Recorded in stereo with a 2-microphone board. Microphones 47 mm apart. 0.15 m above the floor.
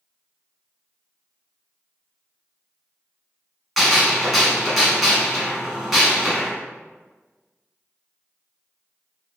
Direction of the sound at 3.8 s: Centre (ahead or behind).